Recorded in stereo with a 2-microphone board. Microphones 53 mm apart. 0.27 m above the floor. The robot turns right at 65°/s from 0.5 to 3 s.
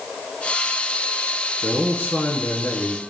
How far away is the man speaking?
About 3 m.